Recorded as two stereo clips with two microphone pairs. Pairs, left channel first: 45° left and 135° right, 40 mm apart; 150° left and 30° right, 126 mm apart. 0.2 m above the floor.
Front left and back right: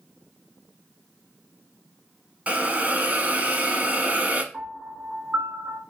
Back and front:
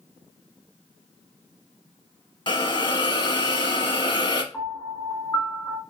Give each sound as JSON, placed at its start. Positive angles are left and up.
{"t": 2.5, "sound": "a hiss", "azimuth_deg": -175, "distance_m": 0.7}
{"t": 4.5, "sound": "a piano", "azimuth_deg": -140, "distance_m": 1.7}